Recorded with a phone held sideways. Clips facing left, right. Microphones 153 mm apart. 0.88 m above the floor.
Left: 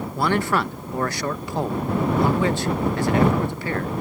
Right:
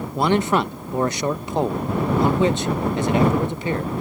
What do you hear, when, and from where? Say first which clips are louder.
0.1 s a man speaking: right 3 dB; 20° right (ahead or behind)